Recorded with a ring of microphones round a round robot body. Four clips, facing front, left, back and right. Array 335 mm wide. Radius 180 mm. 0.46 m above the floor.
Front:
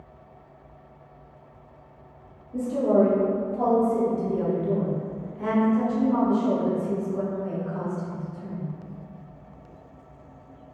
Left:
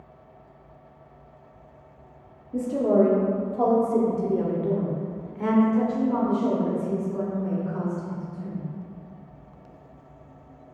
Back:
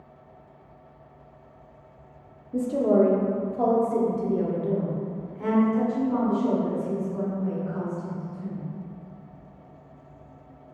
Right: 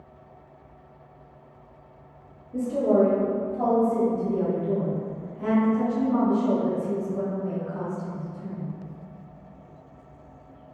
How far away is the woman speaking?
About 1.4 m.